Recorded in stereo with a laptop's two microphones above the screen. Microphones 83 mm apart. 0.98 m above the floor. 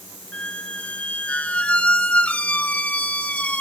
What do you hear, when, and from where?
0.3 s a squeak: 20° left (ahead or behind), 0.7 m